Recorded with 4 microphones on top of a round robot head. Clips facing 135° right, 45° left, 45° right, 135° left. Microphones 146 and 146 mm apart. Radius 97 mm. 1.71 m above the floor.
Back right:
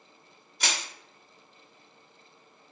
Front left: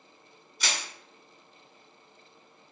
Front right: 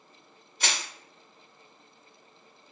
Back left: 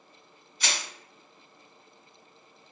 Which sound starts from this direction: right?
Crushing, at 0.6 s.